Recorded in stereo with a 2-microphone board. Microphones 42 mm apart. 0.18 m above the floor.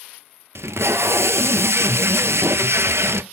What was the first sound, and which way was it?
Tape being pulled, 75° right (ahead or behind).